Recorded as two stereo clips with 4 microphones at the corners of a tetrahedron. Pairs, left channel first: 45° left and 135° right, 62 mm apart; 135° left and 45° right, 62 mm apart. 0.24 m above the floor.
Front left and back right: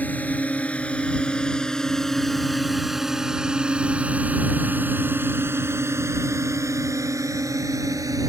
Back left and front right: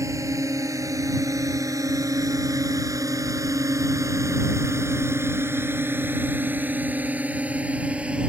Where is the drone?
20° right; by 8.3 s 115° right.